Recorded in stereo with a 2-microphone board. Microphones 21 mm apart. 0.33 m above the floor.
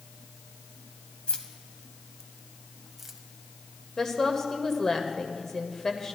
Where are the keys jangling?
50° left (ahead or behind), 1.1 m; by 3.2 s 15° right (ahead or behind), 1.1 m.